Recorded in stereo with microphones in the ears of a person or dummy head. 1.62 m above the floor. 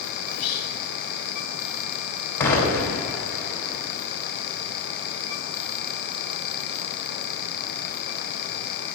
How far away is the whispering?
About 0.5 m.